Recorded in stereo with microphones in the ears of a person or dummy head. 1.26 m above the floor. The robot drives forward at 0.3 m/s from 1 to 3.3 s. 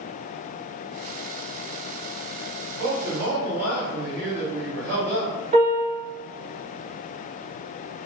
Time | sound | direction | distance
2.7 | a man speaking | 60° right (ahead or behind) | 1.8 m
5.5 | a piano | 35° right (ahead or behind) | 1.5 m